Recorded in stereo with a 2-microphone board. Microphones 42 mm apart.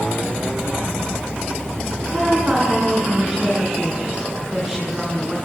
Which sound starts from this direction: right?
A woman speaking, at 2.1 s.